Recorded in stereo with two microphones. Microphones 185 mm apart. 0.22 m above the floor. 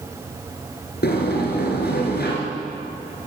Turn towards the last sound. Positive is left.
turn(degrees=70)  # may be behind; listen again after turning